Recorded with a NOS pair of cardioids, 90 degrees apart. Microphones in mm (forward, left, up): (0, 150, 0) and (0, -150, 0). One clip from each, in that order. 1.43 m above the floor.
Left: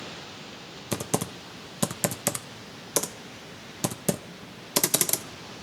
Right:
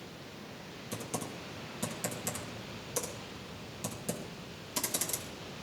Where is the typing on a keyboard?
65° left, 0.7 m.